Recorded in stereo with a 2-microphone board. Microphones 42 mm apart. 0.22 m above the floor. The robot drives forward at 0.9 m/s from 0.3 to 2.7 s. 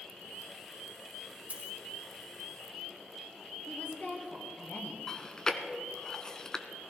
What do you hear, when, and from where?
1.5 s a dropped coin: 35° right (ahead or behind), 3 m; by 1.8 s 40° right (ahead or behind), 3 m
3.7 s a woman speaking: 35° left (ahead or behind), 3.5 m
5.1 s chewing: 20° left (ahead or behind), 0.7 m